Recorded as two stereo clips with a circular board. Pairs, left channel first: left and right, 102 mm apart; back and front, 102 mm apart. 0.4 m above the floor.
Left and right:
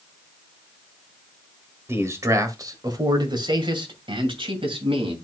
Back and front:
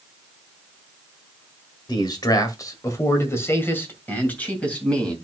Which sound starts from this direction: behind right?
A man speaking, at 1.9 s.